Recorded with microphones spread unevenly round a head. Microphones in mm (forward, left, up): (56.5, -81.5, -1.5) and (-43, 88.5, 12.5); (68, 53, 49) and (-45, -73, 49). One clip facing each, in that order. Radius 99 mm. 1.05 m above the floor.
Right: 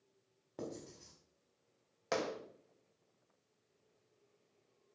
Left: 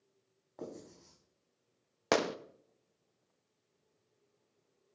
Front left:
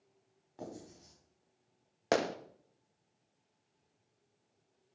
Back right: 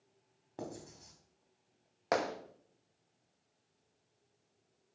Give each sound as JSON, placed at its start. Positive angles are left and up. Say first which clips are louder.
{"t": 0.6, "sound": "writing", "louder": "even, back right 2 dB", "azimuth_deg": -105, "distance_m": 4.0}
{"t": 2.1, "sound": "a gunshot", "louder": "left 6 dB, front left 2 dB", "azimuth_deg": 110, "distance_m": 0.7}